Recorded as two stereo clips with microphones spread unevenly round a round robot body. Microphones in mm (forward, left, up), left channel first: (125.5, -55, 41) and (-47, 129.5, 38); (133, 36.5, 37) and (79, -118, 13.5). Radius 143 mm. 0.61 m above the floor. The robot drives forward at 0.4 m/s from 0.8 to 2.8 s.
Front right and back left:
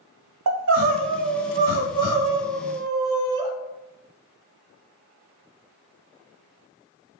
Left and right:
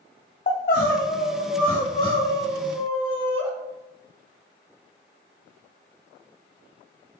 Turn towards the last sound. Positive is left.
turn(degrees=155)